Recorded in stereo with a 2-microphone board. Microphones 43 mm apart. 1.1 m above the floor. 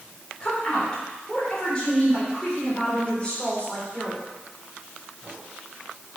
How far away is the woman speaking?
About 3.5 m.